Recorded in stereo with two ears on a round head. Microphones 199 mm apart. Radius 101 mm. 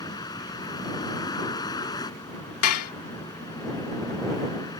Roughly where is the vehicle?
Centre.